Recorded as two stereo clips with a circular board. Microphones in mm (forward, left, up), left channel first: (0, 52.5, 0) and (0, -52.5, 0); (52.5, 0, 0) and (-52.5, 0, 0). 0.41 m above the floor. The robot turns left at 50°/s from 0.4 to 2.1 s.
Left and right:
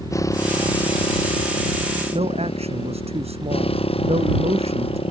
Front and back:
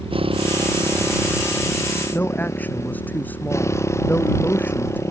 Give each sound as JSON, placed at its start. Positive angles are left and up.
{"t": 0.0, "sound": "a motorcycle", "azimuth_deg": 150}
{"t": 2.1, "sound": "a man speaking", "azimuth_deg": -75}